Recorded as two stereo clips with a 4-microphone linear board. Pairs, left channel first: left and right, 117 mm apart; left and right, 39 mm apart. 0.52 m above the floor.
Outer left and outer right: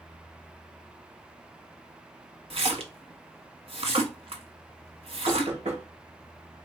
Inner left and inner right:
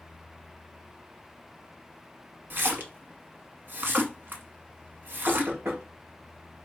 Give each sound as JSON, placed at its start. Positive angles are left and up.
{"t": 2.5, "sound": "a splash", "side_deg": -55, "distance_m": 1.0}
{"t": 5.3, "sound": "knocking", "side_deg": -70, "distance_m": 2.0}